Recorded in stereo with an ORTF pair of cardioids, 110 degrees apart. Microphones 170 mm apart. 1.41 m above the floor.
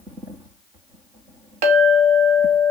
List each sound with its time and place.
1.6 s a clink: 65° right, 1.8 m